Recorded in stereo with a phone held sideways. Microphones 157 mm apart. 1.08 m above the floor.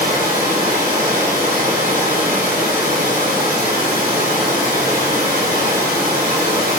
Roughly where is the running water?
Right.